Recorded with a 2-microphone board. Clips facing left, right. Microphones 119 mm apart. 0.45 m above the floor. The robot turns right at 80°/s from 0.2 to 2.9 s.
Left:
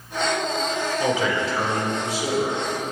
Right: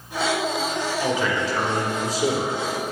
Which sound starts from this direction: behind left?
A man speaking, at 1.0 s.